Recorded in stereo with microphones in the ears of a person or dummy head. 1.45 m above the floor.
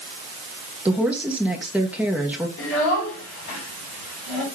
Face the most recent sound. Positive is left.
turn(degrees=85)